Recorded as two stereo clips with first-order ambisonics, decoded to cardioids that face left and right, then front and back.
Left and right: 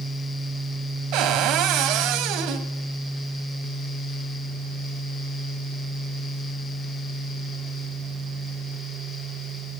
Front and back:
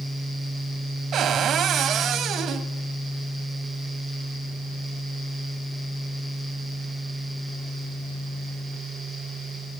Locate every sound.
1.1 s a cupboard door: 120° right, 2.5 m